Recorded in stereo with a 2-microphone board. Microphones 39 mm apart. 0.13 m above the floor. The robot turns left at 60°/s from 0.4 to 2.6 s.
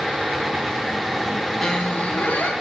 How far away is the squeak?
About 3 m.